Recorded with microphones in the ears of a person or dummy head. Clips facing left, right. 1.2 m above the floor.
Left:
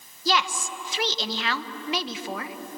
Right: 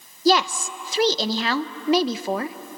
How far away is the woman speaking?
About 0.8 m.